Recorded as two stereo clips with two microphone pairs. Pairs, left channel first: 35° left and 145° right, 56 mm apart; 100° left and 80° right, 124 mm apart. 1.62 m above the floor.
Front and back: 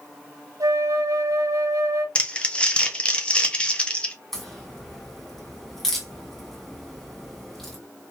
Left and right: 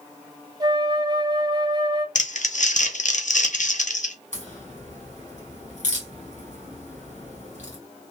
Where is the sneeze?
I don't hear a sneeze.